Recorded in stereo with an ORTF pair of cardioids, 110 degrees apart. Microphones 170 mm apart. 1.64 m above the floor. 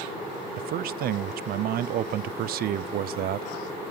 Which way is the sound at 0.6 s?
60° right.